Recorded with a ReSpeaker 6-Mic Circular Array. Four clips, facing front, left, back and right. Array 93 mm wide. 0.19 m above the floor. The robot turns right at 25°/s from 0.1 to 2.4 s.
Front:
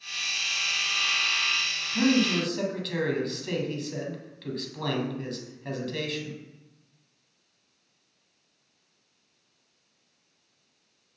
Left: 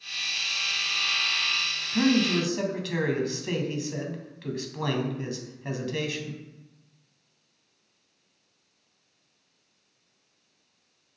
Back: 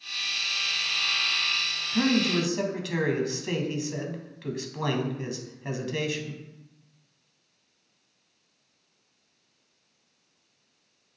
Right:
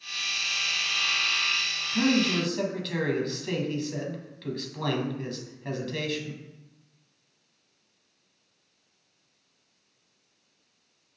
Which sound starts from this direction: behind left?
A man speaking, at 1.9 s.